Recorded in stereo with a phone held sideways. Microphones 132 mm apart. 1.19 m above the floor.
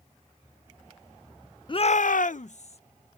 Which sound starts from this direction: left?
A shout, at 1.7 s.